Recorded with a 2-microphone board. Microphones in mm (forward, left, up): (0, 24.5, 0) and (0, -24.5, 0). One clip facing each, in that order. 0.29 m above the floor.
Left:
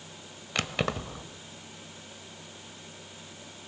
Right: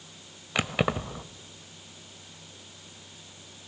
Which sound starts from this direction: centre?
Keys jangling, at 0.6 s.